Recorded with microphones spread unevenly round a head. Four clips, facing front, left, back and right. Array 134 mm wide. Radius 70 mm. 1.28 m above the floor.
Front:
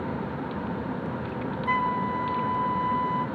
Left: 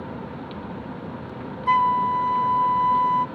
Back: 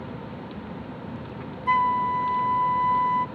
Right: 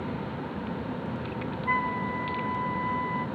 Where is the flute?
120° left, 1.0 m.